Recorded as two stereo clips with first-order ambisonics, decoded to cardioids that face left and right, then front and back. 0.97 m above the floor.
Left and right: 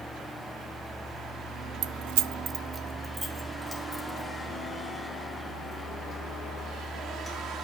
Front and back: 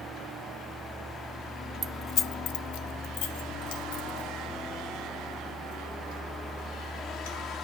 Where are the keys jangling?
120° right, 0.5 m; by 7.4 s straight ahead, 8 m.